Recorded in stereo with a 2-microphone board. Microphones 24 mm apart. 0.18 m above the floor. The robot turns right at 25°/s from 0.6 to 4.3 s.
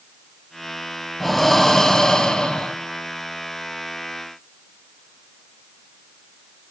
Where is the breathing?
10° left, 0.8 m; by 2.8 s 50° left, 0.8 m.